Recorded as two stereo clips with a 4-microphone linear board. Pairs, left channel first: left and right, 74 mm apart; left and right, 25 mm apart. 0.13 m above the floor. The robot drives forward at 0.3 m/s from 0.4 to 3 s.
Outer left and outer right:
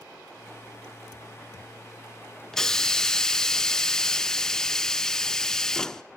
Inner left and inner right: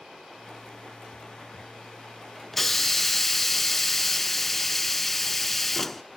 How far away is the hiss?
About 0.6 m.